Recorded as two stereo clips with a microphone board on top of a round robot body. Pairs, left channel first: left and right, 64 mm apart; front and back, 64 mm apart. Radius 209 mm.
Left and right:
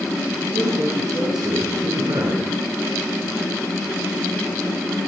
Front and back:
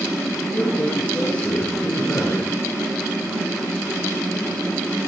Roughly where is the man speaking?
Right.